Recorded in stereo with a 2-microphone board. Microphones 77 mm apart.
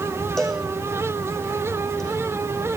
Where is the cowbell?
5° left (ahead or behind), 6.5 m.